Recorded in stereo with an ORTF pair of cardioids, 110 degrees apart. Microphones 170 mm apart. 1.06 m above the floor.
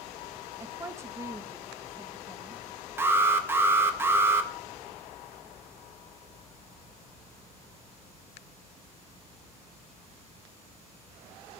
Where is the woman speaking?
15° right, 0.9 m.